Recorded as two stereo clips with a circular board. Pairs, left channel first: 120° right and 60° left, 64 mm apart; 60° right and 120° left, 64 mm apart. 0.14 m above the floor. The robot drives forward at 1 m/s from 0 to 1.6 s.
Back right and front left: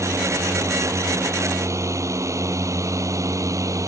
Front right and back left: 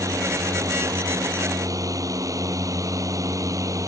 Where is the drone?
95° left; by 3.9 s 90° left.